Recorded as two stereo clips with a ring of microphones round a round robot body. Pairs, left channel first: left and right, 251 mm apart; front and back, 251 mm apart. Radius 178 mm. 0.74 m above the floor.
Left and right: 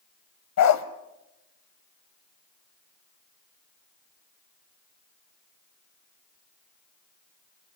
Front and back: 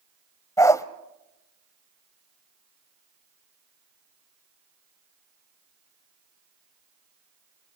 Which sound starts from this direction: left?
A dog barking, at 0.6 s.